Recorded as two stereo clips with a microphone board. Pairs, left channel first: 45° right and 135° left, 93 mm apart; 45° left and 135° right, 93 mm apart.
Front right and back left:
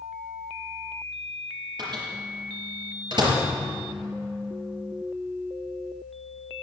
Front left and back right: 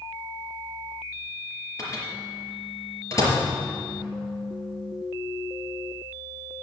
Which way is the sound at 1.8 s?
100° left.